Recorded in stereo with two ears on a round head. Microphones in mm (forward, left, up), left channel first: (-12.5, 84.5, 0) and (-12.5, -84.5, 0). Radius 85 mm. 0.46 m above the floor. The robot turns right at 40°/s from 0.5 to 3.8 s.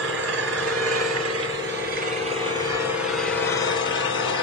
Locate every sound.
0.0 s an engine running: 105° right, 2.5 m; by 4.4 s 25° left, 2.5 m